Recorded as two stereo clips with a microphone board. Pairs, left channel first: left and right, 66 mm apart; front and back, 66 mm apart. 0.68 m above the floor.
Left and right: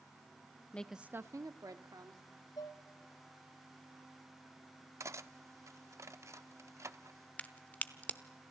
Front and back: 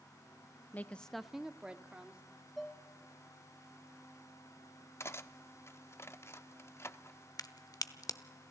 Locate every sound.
0.7 s a woman speaking: 35° left, 0.5 m; by 2.2 s 110° right, 1.6 m
2.6 s dishes clattering: 90° left, 1.4 m
5.0 s cutlery clinking: 50° right, 0.7 m
7.4 s a crack: 25° left, 0.9 m